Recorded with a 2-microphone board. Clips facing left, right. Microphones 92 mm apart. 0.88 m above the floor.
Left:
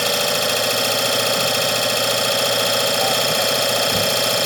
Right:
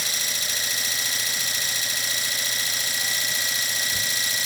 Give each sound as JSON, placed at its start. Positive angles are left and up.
{"t": 0.0, "sound": "an engine running", "side_deg": 80}